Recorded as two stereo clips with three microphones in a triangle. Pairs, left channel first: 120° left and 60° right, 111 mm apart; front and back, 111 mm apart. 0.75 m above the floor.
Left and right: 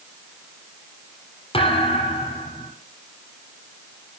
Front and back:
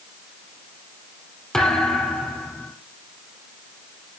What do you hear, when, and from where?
1.5 s a thud: 85° left, 3.5 m